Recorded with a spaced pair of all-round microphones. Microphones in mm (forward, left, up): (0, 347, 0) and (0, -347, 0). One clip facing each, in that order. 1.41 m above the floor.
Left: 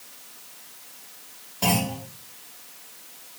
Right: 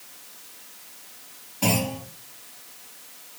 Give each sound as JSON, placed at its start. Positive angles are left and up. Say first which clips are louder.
{"t": 1.6, "sound": "a clunk", "louder": "right 1 dB", "side_deg": 15, "distance_m": 4.0}